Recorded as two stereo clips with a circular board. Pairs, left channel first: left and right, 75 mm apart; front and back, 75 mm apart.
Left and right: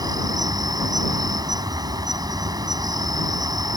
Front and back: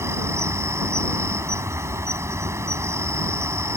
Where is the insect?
125° right.